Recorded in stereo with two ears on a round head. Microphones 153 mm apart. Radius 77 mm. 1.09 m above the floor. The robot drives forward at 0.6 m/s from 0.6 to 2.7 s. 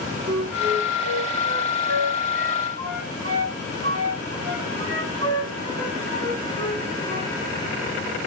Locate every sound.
0.3 s a flute: 75° right (ahead or behind), 6.5 m; by 7.3 s 65° right (ahead or behind), 7 m